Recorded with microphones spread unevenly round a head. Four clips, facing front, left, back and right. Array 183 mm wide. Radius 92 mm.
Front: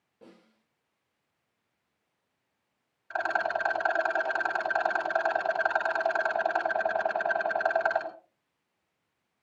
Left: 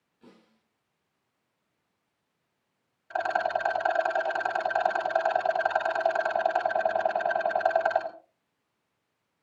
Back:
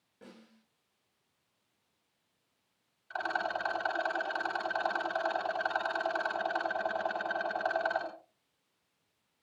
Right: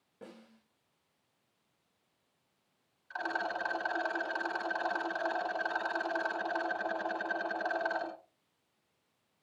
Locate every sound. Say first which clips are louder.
0.2 s a snare drum: right 4 dB, even; 90° right, 9 m
3.1 s a rattle: left 9 dB, front 5 dB; 75° left, 3.5 m